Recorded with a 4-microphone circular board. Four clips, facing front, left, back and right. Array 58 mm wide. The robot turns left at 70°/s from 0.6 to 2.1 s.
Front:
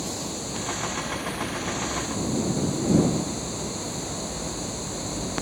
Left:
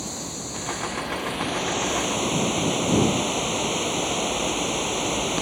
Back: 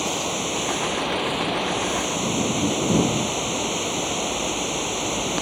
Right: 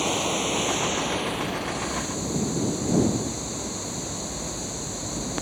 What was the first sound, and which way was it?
Running water, 130° right.